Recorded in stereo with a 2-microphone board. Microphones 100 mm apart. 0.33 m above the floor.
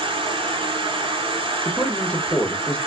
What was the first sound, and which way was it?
An insect, 60° right (ahead or behind).